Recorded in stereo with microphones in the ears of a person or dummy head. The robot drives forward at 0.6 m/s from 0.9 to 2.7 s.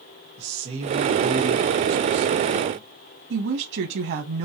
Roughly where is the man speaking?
Right.